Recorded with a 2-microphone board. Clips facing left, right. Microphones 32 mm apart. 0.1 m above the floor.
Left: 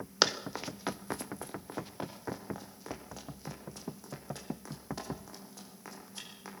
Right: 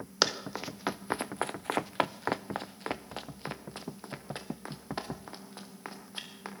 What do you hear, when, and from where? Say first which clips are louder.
0.2 s running footsteps: even; centre (ahead or behind), 1.2 m; by 6.5 s 35° right (ahead or behind), 4.5 m